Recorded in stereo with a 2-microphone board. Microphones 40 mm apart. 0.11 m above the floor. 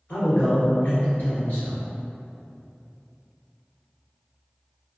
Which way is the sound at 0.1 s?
45° left (ahead or behind).